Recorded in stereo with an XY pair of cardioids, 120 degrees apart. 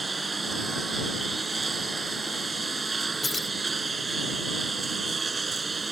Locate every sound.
0.0 s a lawn mower: 25° right
3.2 s keys jangling: 20° left